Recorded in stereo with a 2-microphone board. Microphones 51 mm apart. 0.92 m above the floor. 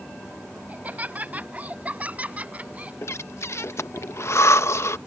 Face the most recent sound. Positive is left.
turn(degrees=60)  # may be behind; listen again after turning